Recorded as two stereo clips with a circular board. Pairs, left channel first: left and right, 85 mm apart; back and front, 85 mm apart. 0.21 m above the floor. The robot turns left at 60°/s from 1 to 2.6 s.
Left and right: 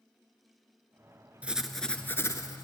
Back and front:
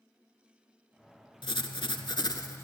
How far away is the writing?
About 0.6 m.